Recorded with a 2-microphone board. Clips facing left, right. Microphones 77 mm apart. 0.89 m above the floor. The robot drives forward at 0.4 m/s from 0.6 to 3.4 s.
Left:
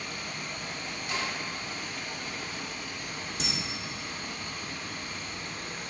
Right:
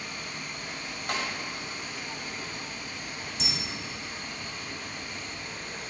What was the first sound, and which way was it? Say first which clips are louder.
Running water: left 1 dB; 70° left (ahead or behind).